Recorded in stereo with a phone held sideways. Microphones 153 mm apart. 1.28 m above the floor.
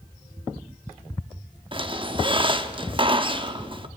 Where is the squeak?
35° right (ahead or behind), 1.1 m.